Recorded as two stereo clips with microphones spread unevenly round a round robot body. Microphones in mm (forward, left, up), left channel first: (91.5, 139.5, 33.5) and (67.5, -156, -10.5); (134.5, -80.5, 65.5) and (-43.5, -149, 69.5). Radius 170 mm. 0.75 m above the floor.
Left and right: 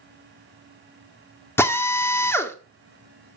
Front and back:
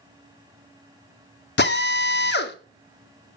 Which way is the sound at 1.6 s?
Straight ahead.